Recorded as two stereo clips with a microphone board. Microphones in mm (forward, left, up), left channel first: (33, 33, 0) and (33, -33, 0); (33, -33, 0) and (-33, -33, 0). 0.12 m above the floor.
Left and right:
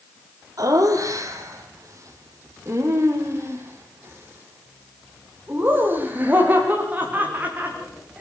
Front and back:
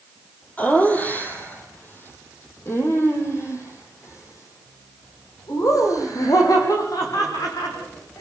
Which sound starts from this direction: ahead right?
Laughter, at 0.6 s.